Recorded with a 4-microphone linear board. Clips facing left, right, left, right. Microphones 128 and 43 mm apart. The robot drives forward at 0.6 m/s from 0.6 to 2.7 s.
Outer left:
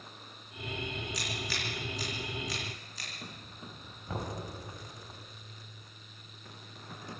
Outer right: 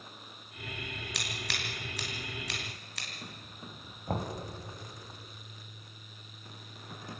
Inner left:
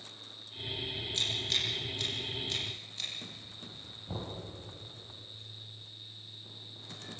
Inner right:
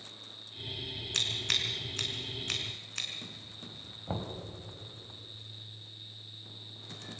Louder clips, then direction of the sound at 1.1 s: Outer left 2 dB, inner right 2 dB; 85° right.